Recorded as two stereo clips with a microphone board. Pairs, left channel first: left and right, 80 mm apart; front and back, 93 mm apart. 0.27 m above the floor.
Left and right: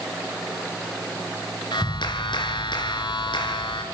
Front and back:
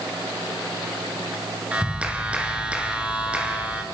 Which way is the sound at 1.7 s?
105° left.